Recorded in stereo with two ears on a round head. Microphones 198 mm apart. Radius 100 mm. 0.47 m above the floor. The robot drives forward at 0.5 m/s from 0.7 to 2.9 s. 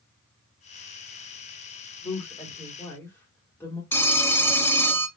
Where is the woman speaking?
15° left (ahead or behind), 1.6 m.